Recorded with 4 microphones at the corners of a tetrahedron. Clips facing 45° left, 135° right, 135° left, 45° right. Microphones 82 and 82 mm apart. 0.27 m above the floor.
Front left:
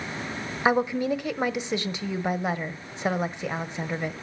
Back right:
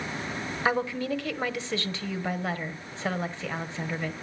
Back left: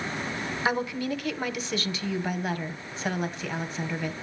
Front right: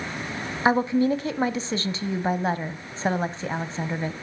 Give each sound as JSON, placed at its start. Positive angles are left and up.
{"t": 0.7, "sound": "a woman speaking", "azimuth_deg": -15, "distance_m": 1.2}